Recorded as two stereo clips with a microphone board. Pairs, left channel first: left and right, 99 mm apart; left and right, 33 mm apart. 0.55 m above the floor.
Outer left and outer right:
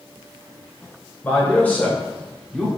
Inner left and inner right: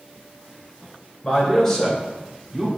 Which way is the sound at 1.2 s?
15° left (ahead or behind).